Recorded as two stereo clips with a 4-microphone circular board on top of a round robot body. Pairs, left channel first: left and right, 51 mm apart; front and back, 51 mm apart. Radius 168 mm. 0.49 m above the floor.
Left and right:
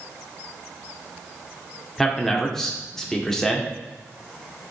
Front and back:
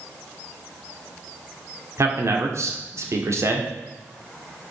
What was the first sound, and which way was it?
A man speaking, 170° left.